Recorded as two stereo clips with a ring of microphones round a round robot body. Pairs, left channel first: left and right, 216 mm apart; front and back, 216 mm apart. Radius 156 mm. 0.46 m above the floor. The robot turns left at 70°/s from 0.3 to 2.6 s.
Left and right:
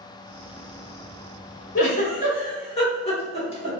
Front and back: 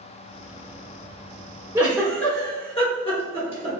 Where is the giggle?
110° left, 1.5 m; by 3.7 s 50° left, 1.5 m.